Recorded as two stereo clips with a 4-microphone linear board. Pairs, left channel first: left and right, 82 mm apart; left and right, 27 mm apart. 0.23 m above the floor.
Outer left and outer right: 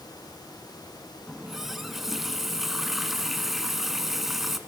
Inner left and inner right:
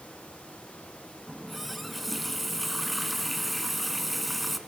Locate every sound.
1.3 s a running tap: 5° right (ahead or behind), 1.4 m